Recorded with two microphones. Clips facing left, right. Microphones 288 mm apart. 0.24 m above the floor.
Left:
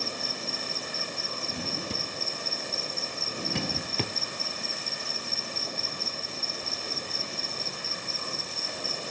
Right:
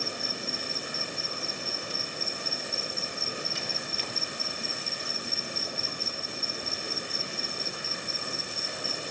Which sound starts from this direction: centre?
An insect, at 0.0 s.